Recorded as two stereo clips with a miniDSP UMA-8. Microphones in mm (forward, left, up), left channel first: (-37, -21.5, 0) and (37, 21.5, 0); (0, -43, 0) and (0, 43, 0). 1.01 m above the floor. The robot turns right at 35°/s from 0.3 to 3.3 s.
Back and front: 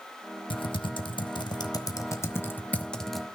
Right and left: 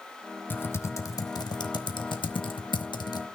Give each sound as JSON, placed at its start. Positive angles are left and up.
{"t": 0.5, "sound": "typing on a keyboard", "azimuth_deg": -155, "distance_m": 1.0}